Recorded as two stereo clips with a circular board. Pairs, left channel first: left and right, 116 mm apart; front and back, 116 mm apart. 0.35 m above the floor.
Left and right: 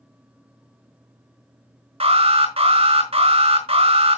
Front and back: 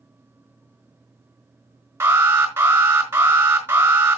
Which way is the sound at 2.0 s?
115° right.